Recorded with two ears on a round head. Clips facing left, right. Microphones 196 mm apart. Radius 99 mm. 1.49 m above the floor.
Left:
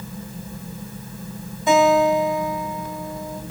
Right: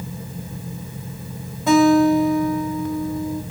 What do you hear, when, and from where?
1.7 s a guitar: 55° right (ahead or behind), 2.5 m